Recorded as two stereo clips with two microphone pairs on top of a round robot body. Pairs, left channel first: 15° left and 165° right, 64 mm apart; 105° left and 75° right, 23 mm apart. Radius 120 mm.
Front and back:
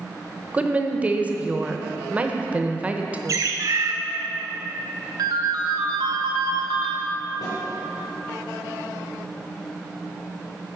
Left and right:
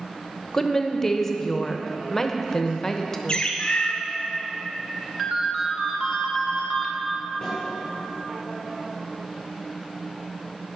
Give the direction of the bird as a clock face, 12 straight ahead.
7 o'clock.